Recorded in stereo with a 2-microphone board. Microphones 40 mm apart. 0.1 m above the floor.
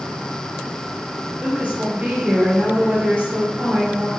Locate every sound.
1.4 s a woman speaking: 50° right (ahead or behind), 2 m